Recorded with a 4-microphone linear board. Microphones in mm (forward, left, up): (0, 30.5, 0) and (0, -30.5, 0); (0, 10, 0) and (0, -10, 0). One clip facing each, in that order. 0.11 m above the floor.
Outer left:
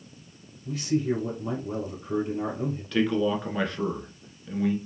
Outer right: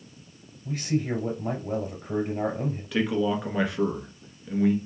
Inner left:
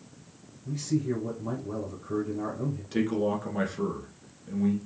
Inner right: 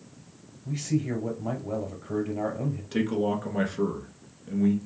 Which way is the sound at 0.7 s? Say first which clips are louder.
Outer left 2 dB, even; 35° right (ahead or behind).